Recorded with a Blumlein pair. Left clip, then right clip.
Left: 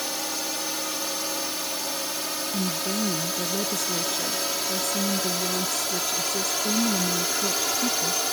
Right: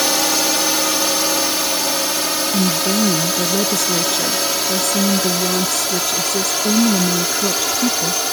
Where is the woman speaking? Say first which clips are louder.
Right 10 dB; 65° right.